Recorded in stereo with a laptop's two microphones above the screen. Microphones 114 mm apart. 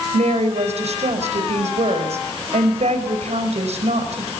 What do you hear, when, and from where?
0.1 s a woman speaking: 75° right (ahead or behind), 5 m